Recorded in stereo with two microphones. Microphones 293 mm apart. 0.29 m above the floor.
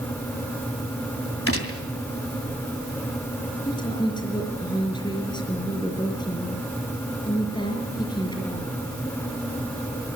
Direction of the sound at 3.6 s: 15° left (ahead or behind).